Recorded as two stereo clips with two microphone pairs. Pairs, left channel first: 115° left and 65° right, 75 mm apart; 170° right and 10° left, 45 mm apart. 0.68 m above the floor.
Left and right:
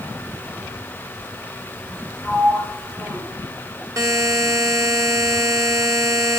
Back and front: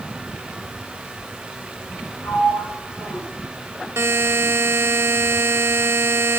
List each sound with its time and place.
2.2 s a sliding door: 160° right, 7 m
4.0 s a buzzer: 15° right, 1.3 m